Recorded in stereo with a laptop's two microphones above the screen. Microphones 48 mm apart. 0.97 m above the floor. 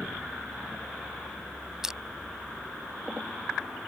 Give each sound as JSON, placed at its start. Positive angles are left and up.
{"t": 1.8, "sound": "crushing", "side_deg": -10}